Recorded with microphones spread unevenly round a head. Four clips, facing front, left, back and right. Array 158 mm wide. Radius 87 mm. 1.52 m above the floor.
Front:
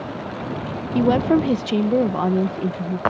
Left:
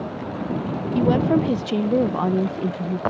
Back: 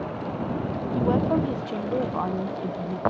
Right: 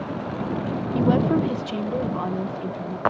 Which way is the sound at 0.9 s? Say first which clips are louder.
Left 2 dB, front 6 dB; straight ahead.